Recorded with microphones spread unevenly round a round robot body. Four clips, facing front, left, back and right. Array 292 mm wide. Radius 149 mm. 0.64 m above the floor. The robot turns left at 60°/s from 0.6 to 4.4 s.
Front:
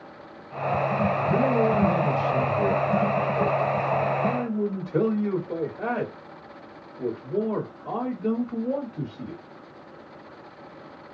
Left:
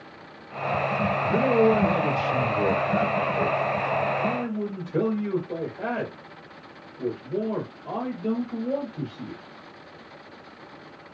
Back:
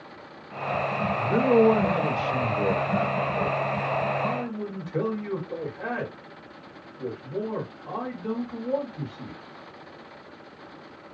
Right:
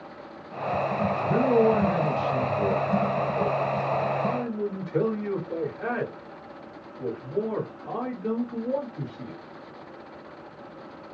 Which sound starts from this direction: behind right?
A man speaking, at 1.1 s.